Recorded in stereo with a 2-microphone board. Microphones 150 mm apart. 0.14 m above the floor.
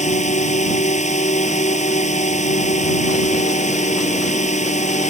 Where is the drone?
55° left (ahead or behind).